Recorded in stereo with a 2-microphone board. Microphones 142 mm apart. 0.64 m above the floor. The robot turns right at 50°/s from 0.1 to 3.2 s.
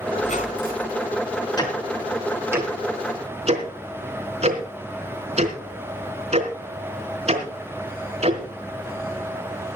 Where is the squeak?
55° left, 3.5 m; by 1.0 s 95° left, 3.5 m.